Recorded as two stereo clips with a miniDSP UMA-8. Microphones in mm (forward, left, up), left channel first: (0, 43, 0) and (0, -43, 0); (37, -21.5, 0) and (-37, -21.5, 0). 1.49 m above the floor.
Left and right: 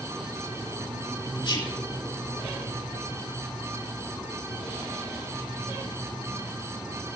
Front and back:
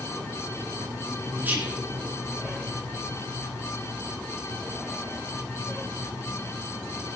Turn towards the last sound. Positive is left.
turn(degrees=115)